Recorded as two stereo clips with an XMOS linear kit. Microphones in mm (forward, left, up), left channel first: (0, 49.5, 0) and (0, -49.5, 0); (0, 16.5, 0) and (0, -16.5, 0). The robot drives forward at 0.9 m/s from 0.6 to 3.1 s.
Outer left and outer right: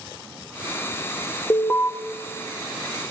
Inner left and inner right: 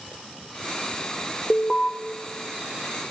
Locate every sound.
1.5 s an alarm: 25° left (ahead or behind), 0.8 m; by 1.9 s 15° left (ahead or behind), 1.1 m